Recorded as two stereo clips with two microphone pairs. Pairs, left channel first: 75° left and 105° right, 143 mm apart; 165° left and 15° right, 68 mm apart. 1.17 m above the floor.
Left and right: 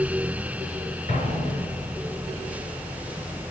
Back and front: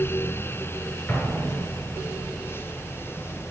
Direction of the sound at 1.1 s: 105° left.